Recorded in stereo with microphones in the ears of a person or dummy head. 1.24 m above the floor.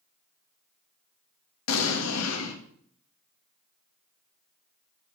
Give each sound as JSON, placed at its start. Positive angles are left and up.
{"t": 1.7, "sound": "an explosion", "side_deg": 80, "distance_m": 1.8}